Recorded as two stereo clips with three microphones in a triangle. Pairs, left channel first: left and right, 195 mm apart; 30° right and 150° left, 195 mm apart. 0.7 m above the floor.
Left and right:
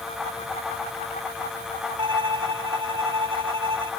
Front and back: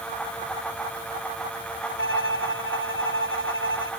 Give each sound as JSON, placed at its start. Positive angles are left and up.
{"t": 2.0, "sound": "a violin", "azimuth_deg": -25}